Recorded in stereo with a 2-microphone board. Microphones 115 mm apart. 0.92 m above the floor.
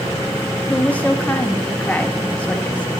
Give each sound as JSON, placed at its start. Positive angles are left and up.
{"t": 0.7, "sound": "a woman speaking", "side_deg": 10, "distance_m": 0.9}